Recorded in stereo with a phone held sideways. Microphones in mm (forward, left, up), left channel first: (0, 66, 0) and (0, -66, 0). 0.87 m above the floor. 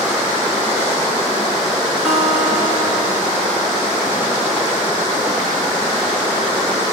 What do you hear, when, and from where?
2.0 s a guitar: 5° right (ahead or behind), 1.8 m